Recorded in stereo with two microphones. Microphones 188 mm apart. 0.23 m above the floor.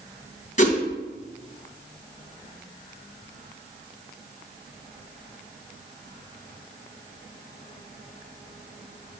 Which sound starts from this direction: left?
A whoosh, at 0.6 s.